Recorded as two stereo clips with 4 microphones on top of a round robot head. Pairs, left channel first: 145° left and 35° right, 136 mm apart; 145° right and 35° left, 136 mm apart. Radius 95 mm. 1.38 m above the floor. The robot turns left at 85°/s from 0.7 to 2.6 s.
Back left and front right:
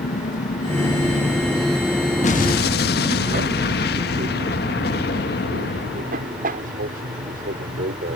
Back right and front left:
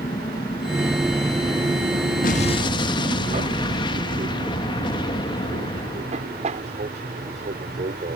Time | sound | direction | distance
0.0 | an aircraft | 155° left | ?
2.2 | an explosion | 175° right | ?